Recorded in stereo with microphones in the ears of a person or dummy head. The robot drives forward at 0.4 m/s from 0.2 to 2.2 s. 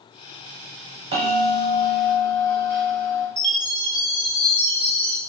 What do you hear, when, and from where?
1.1 s a bell: 40° right (ahead or behind), 1.1 m; by 3.3 s 25° right (ahead or behind), 1.5 m
3.4 s a chime: 30° left (ahead or behind), 0.8 m